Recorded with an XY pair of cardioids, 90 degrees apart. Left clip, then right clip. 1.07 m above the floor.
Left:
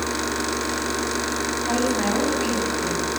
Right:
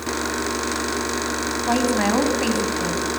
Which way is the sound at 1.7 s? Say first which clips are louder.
Right 4 dB; 45° right.